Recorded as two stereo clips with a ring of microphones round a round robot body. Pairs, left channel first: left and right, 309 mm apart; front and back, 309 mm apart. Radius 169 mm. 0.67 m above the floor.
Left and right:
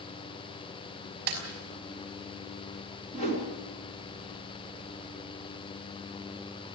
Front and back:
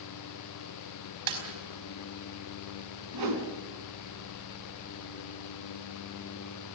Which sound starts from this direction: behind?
A whoosh, at 3.1 s.